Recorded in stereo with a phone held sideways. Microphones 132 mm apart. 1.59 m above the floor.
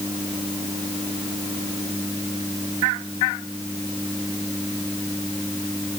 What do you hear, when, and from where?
Only background noise.